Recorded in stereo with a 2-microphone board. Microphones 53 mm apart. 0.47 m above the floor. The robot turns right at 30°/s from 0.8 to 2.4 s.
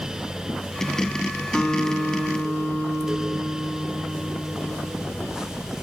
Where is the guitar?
20° left (ahead or behind), 1.7 m; by 4.9 s 5° right (ahead or behind), 1.7 m.